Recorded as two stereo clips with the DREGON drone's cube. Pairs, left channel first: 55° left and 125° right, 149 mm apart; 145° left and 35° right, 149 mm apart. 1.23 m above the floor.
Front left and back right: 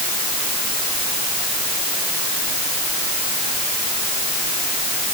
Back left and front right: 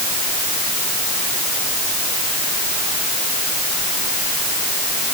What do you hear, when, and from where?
Only background noise.